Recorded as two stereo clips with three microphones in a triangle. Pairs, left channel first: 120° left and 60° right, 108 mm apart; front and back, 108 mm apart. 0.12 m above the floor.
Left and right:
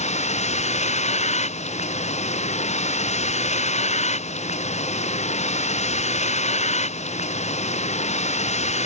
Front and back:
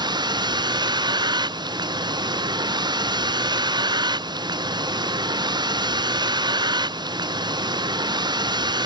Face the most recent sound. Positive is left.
turn(degrees=130)